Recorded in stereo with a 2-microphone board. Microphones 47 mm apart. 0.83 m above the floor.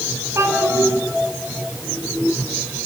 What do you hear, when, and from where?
0.3 s a child speaking: 65° right (ahead or behind), 7.5 m